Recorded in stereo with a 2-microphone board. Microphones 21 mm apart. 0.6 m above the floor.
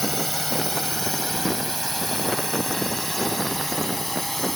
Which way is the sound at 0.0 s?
20° left (ahead or behind).